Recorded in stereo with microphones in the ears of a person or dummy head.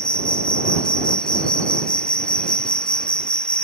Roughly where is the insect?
Centre.